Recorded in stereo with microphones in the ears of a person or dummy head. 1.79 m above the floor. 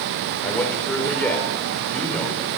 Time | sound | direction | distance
0.4 | a man speaking | 5° left (ahead or behind) | 6.5 m